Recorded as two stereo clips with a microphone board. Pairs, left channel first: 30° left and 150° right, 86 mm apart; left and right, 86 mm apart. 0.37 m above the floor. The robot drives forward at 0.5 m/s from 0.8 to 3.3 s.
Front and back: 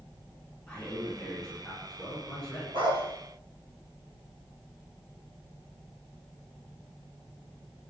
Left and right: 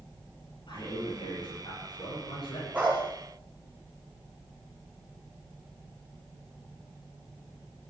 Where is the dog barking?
165° right, 4.5 m.